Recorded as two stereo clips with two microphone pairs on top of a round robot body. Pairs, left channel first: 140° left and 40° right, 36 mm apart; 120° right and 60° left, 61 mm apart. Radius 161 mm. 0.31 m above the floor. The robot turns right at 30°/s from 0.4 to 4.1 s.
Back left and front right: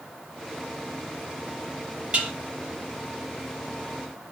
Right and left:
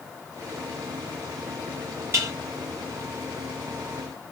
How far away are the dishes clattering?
About 6.5 m.